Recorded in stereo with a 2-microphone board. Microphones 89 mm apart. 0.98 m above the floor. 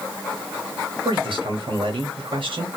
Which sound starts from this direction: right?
A man speaking, at 1.1 s.